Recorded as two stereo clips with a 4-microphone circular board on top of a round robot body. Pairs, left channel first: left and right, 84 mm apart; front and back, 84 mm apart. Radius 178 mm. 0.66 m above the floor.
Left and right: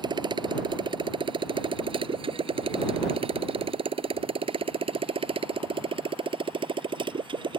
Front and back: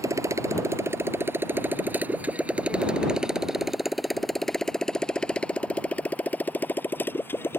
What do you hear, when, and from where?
0.0 s a motorcycle: 125° right; by 7.6 s 65° right